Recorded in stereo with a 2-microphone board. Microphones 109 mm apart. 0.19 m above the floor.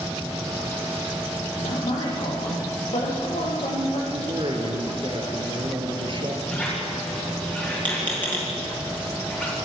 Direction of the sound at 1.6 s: 70° left (ahead or behind).